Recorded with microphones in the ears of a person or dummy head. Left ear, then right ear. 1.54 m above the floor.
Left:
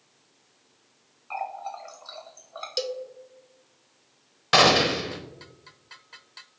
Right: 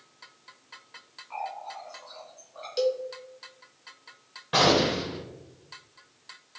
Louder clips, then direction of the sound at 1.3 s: Left 3 dB; 40° left (ahead or behind).